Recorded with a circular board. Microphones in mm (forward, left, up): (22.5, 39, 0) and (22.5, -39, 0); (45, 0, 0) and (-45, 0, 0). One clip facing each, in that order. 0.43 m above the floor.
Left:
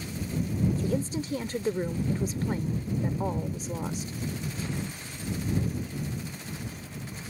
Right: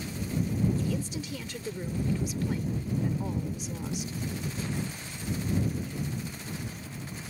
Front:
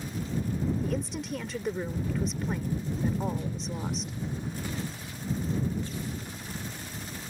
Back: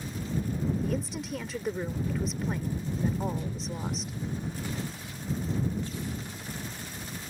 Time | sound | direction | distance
0.8 | a woman speaking | 90° left | ?